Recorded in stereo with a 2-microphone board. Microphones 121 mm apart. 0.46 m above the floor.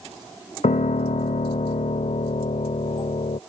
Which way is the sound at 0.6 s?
75° left (ahead or behind).